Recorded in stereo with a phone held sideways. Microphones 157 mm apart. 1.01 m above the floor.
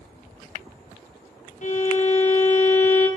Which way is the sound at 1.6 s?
50° left (ahead or behind).